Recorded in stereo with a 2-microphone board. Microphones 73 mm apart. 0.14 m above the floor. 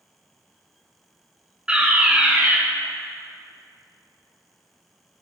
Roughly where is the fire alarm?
Centre.